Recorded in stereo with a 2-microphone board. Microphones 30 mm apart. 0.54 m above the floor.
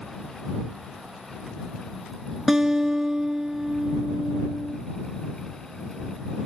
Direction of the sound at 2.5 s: 20° right (ahead or behind).